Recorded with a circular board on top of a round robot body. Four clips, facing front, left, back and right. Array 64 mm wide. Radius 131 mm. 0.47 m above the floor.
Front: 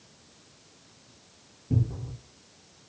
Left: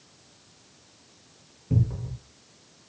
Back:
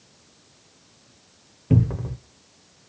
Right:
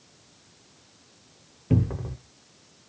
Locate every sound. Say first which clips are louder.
1.7 s a cupboard door: right 3 dB, back 8 dB; 140° right, 0.6 m